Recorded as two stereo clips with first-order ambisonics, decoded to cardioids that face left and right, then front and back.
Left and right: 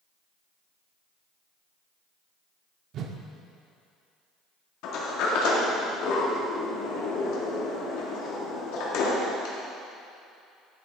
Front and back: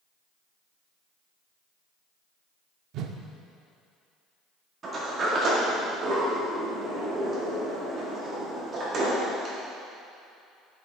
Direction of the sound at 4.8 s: 115° left.